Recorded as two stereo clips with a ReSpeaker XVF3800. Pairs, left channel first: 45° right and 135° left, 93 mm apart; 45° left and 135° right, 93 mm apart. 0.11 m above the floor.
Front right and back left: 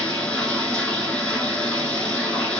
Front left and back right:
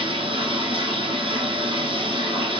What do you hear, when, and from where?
0.0 s running water: 120° right, 3 m